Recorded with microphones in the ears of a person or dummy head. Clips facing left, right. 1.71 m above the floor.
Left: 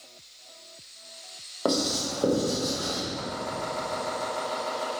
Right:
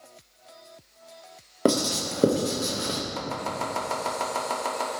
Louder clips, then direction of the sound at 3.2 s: Right 1 dB; 85° right.